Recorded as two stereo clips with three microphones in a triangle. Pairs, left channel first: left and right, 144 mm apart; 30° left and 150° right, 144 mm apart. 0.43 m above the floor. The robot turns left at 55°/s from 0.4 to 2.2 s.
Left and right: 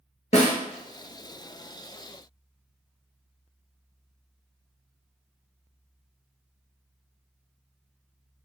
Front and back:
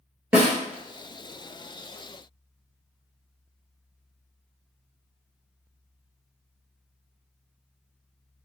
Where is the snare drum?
130° left, 1.1 m; by 0.5 s 125° left, 1.1 m.